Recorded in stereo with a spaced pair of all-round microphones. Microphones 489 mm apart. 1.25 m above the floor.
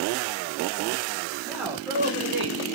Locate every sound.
1.4 s a man speaking: centre (ahead or behind), 1.8 m; by 2.6 s 70° right (ahead or behind), 0.6 m